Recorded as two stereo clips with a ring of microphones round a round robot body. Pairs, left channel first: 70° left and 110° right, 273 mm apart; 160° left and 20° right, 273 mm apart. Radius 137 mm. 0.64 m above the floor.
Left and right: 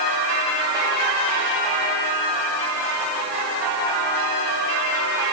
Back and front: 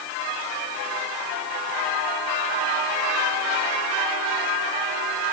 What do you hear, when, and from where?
Only background noise.